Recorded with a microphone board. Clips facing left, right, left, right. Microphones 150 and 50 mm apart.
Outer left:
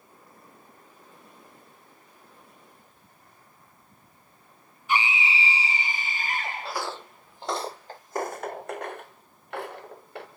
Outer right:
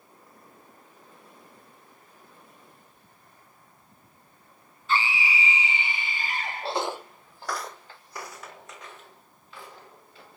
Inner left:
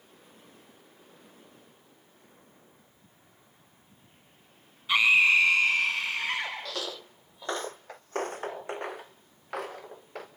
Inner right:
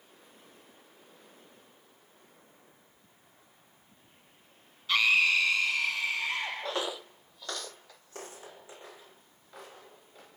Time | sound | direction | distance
4.9 | a scream | 15° left (ahead or behind) | 2 m
6.6 | footsteps | 35° right (ahead or behind) | 0.6 m